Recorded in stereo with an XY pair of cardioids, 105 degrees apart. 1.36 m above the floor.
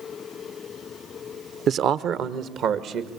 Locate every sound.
1.7 s a man speaking: 60° right, 0.8 m; by 3.1 s 75° right, 2.5 m